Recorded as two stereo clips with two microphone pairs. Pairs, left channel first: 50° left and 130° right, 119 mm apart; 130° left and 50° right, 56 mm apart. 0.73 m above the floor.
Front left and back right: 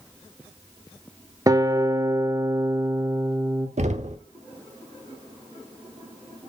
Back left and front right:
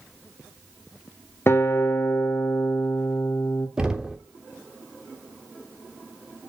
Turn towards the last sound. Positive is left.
turn(degrees=-130)